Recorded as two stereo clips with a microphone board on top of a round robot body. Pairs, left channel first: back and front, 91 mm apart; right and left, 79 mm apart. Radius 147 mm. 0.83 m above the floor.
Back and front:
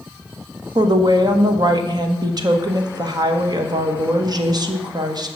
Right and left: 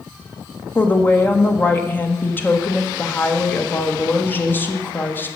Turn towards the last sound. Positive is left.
turn(degrees=-30)